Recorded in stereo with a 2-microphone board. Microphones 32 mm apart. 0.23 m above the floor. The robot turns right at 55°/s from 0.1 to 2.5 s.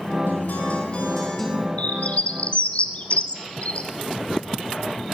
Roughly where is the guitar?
Left.